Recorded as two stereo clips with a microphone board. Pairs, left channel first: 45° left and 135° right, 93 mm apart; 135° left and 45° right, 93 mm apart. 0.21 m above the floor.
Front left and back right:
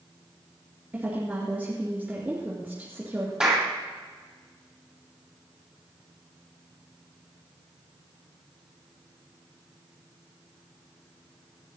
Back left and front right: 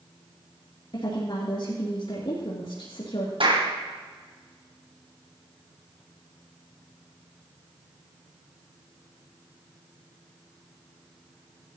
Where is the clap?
55° right, 6 m.